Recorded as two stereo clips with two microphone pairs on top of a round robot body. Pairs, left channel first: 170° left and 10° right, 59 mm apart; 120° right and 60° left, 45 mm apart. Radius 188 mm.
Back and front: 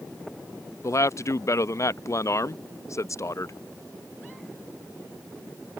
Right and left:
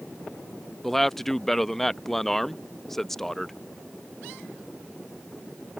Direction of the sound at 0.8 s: 165° left.